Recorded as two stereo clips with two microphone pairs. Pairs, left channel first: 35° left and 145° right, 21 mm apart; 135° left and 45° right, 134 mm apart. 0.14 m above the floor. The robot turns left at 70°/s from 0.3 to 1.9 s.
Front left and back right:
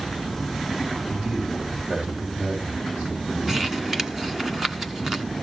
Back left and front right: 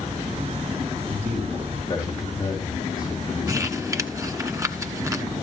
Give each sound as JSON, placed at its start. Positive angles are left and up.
{"t": 1.1, "sound": "a man speaking", "azimuth_deg": -105, "distance_m": 5.5}
{"t": 3.5, "sound": "crumpling", "azimuth_deg": -80, "distance_m": 1.1}